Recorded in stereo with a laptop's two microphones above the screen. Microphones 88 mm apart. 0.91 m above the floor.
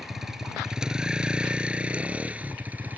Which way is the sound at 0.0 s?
5° right (ahead or behind).